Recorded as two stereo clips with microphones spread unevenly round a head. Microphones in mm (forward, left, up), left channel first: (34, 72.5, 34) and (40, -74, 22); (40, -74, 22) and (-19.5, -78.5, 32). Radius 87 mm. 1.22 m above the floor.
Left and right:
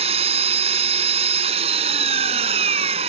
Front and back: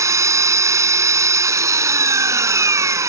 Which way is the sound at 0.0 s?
145° right.